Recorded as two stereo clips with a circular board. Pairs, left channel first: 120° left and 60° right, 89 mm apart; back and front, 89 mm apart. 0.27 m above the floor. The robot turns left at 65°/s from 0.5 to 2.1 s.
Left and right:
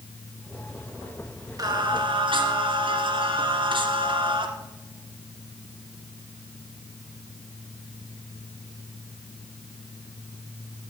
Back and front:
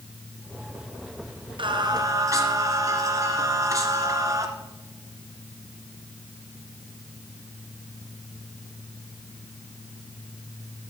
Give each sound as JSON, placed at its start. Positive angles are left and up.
{"t": 1.6, "sound": "singing", "azimuth_deg": -20, "distance_m": 1.4}